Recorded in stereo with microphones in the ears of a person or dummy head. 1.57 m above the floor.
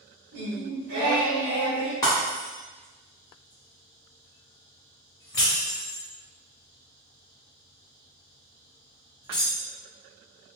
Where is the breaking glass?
20° left (ahead or behind), 1.6 m.